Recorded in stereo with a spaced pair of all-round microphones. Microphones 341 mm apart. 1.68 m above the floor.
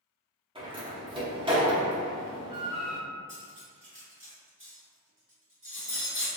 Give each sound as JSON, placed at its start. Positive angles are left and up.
{"t": 0.6, "sound": "a door slam", "side_deg": -15, "distance_m": 1.0}
{"t": 3.3, "sound": "cutlery clinking", "side_deg": -35, "distance_m": 1.6}